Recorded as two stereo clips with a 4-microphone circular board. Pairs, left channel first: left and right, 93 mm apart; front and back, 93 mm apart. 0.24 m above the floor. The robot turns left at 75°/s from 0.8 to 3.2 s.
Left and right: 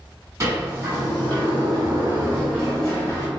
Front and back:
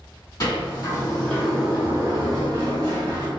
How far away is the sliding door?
About 2.0 m.